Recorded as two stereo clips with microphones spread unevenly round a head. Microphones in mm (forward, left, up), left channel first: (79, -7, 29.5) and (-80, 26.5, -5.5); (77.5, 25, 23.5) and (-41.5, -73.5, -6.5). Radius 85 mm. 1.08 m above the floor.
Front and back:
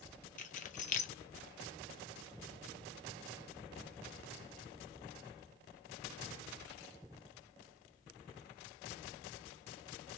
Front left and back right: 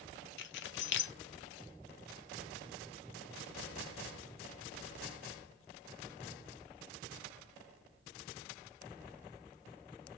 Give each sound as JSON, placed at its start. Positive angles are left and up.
{"t": 0.4, "sound": "keys jangling", "azimuth_deg": 35, "distance_m": 0.6}